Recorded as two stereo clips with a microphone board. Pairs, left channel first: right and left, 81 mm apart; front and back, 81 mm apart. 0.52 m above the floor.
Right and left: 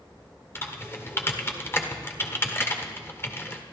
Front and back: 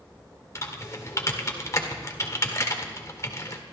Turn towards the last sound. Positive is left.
turn(degrees=-40)